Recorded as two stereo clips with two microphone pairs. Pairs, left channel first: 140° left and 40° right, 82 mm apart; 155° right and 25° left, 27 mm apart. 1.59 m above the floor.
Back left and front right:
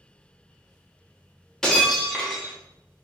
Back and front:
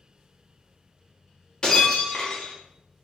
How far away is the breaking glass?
About 1.1 m.